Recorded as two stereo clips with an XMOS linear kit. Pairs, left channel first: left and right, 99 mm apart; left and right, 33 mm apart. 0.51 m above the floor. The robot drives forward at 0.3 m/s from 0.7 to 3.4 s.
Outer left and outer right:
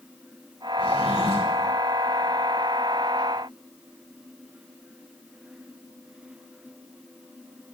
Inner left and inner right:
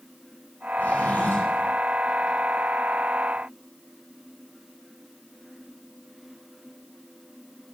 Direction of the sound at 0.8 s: 70° left (ahead or behind).